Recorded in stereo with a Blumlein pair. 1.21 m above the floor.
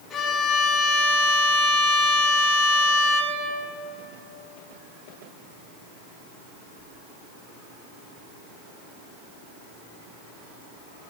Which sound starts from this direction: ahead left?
A violin, at 0.1 s.